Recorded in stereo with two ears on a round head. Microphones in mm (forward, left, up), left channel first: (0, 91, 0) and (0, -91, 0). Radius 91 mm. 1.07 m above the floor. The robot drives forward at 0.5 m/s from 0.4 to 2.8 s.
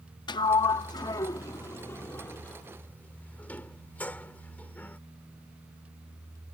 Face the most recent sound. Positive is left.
turn(degrees=10)  # may be behind; listen again after turning